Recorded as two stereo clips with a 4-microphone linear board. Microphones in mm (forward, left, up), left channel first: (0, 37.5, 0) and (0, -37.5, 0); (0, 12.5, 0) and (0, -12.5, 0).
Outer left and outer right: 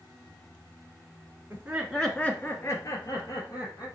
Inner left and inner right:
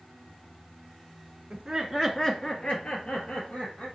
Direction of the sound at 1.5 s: 30° right (ahead or behind).